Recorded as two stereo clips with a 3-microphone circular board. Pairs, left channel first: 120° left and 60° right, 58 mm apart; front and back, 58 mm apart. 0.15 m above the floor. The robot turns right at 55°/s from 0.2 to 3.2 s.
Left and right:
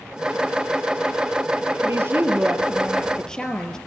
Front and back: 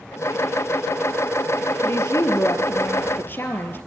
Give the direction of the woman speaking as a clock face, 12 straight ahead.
1 o'clock.